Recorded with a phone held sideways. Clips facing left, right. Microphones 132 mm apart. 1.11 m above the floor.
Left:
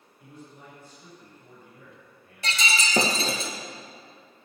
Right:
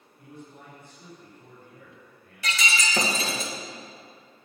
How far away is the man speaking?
About 6 m.